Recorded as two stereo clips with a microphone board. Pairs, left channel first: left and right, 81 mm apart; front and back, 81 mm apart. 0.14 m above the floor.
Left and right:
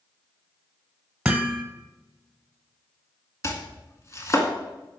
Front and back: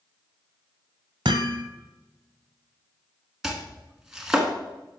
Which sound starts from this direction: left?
Chopping, at 3.4 s.